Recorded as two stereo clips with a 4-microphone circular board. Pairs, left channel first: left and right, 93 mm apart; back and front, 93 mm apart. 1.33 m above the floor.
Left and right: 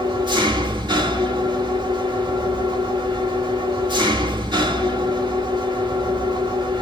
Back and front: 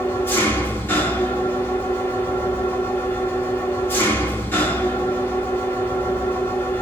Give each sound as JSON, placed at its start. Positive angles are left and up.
{"t": 0.0, "sound": "an engine running", "azimuth_deg": -115, "distance_m": 1.2}